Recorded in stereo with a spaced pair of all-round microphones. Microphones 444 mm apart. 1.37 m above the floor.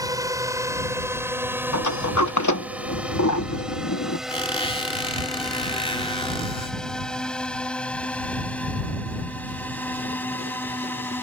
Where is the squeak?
15° left (ahead or behind).